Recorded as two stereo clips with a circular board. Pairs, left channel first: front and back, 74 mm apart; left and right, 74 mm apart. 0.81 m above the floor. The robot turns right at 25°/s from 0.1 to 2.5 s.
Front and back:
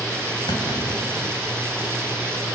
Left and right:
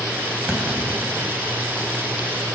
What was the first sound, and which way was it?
A clunk, 10° right.